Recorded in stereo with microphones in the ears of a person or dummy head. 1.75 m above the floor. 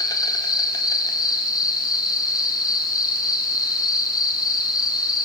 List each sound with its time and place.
0.0 s an insect: 20° left (ahead or behind), 2 m